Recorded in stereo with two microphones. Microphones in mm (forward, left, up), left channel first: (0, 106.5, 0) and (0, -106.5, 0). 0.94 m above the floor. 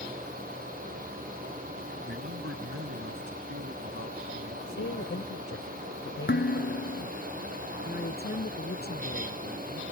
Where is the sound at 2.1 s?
80° right.